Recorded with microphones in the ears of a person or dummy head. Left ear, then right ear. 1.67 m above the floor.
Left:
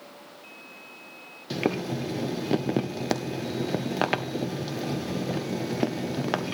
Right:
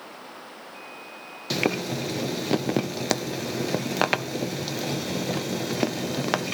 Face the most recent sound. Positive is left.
turn(degrees=-20)  # may be behind; listen again after turning